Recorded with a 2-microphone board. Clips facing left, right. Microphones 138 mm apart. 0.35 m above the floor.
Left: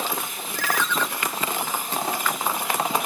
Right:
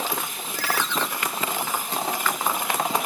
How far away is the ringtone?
About 1.7 m.